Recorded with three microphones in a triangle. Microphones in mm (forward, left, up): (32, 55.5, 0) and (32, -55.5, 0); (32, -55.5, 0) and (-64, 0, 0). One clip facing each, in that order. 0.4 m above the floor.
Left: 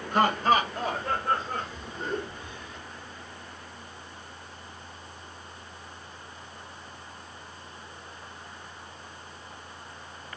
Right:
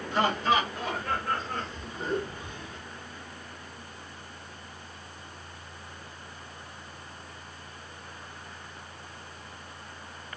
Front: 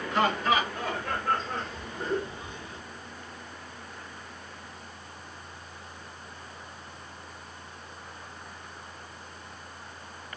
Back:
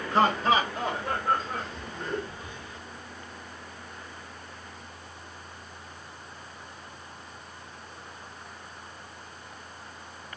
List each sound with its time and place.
0.1 s laughter: 110° left, 2 m; by 2.8 s 55° right, 1.5 m